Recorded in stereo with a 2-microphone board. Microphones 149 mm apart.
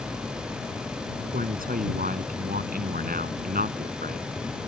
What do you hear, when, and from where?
1.2 s a man speaking: 70° right (ahead or behind)